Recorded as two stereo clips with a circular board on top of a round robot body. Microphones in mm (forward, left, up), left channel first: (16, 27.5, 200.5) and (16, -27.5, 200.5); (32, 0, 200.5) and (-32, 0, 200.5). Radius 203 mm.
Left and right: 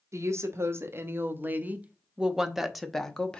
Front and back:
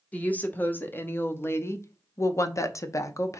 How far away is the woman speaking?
About 1.9 m.